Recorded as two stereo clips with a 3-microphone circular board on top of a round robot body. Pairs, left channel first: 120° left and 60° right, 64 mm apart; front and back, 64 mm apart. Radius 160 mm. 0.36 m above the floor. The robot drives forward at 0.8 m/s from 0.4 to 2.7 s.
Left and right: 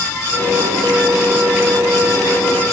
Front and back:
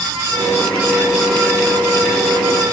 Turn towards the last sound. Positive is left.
No sound to turn to.